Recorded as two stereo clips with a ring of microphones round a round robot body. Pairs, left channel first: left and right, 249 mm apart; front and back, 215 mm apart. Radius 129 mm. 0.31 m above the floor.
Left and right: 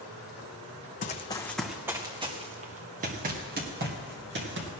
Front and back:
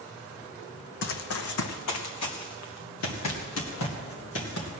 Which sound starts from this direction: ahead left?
Running footsteps, at 1.0 s.